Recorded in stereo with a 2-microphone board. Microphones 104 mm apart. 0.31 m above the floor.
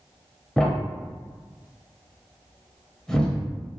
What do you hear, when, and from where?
0.6 s a thud: 5° left (ahead or behind), 0.5 m